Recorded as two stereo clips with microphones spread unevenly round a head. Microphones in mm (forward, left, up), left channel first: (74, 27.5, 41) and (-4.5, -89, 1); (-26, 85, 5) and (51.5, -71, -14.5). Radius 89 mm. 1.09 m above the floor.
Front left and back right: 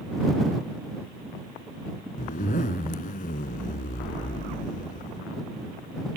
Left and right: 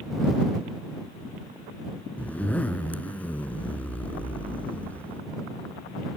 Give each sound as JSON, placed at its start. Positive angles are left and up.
{"t": 2.2, "sound": "a zipper", "azimuth_deg": 35}